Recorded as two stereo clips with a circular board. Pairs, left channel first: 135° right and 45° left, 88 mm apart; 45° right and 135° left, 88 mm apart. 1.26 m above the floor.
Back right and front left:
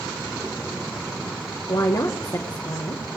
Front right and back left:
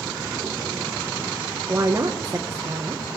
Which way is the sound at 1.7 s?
170° right.